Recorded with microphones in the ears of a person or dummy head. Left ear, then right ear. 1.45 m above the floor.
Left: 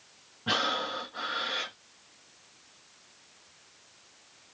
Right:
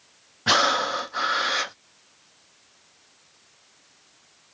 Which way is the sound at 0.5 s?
65° right (ahead or behind).